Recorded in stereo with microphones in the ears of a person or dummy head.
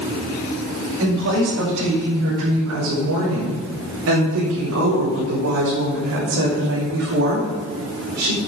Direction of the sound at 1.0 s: 70° right (ahead or behind).